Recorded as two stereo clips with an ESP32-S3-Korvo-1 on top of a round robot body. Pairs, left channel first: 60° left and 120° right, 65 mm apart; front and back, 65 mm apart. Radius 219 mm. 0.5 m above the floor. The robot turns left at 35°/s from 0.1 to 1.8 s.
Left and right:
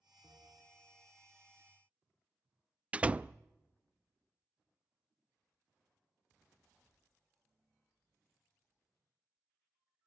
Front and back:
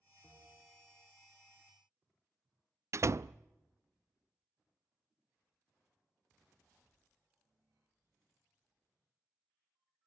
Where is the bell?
65° right, 4.5 m; by 1.1 s 95° right, 4.5 m.